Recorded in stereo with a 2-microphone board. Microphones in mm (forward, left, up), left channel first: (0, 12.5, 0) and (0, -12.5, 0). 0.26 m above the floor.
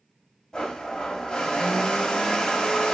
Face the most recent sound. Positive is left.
turn(degrees=30)  # may be behind; listen again after turning